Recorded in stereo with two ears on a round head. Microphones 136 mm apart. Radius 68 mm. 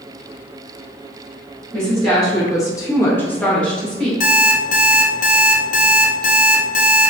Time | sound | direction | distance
1.7 | a woman speaking | 20° left (ahead or behind) | 1.0 m
4.2 | an alarm clock | 55° left (ahead or behind) | 0.7 m